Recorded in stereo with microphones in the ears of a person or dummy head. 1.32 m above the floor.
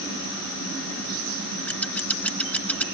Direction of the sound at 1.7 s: 5° left (ahead or behind).